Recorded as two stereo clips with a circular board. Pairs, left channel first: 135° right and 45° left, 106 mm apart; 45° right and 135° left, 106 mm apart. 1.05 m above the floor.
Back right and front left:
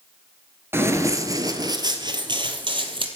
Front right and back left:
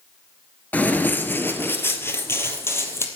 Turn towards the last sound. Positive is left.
turn(degrees=20)